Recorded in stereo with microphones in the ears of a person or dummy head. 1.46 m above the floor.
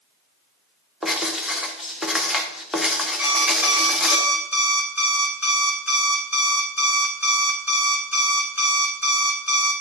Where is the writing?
Centre (ahead or behind), 0.9 m.